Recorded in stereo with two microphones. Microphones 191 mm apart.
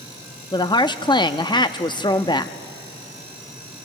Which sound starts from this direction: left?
A woman speaking, at 0.5 s.